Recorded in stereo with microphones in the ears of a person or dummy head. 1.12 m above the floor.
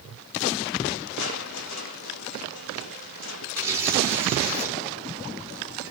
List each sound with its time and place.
1.2 s crushing: 65° left (ahead or behind), 1.9 m
3.5 s tearing paper: 15° right (ahead or behind), 4 m